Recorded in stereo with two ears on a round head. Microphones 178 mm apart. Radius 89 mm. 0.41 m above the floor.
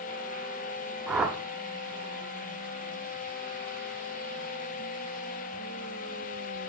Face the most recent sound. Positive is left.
turn(degrees=-5)  # may be behind; listen again after turning